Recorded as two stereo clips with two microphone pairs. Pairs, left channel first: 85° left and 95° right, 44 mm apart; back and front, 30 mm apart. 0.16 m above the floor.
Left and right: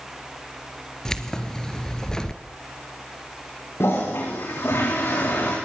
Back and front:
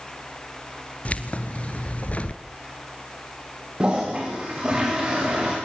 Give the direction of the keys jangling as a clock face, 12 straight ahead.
7 o'clock.